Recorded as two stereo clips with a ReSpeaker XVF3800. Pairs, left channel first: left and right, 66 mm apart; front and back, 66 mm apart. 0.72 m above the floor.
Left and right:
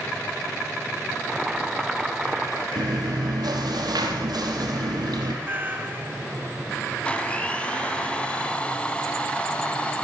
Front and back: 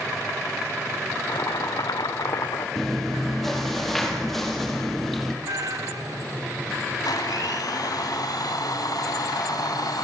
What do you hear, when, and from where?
1.3 s boiling: 5° right, 1.8 m
2.8 s chewing: 85° right, 4 m
5.4 s a cat meowing: 150° right, 2.5 m
7.0 s a blender: 15° left, 3 m